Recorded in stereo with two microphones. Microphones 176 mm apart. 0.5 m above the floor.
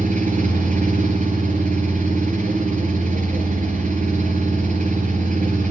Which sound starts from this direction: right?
An engine running, at 0.0 s.